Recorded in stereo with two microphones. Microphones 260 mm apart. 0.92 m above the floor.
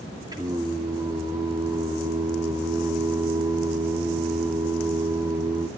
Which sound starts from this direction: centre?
Singing, at 0.3 s.